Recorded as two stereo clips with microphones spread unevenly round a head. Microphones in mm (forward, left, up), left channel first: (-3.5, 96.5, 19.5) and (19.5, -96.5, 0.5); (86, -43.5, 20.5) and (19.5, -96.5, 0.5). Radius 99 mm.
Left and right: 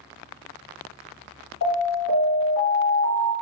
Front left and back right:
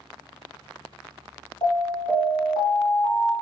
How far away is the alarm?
About 1.8 m.